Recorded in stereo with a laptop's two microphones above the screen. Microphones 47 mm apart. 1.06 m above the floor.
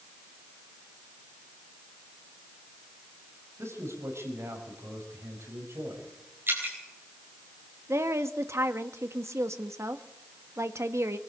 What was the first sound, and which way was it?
A man speaking, 80° right.